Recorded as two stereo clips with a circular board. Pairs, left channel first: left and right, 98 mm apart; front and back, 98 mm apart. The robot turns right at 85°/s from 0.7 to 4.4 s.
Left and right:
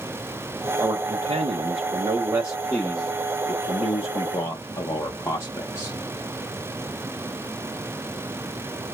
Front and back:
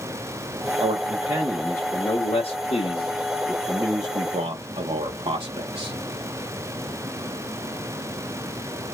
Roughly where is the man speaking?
Behind right.